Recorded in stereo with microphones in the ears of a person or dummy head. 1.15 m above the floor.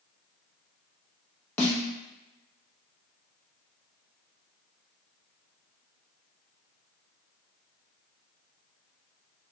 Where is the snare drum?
10° left (ahead or behind), 0.7 m.